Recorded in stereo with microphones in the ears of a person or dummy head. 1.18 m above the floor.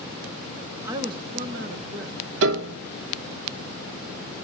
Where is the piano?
65° right (ahead or behind), 0.6 m.